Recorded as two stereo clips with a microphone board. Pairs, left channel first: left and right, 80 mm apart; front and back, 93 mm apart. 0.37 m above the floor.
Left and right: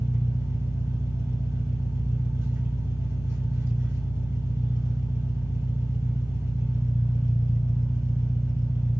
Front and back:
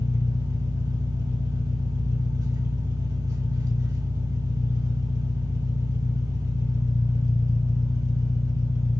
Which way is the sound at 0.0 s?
135° right.